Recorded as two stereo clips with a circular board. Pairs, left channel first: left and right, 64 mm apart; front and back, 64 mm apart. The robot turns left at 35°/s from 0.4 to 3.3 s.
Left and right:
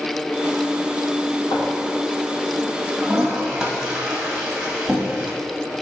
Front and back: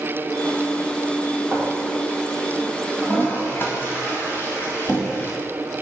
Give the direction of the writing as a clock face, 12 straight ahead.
8 o'clock.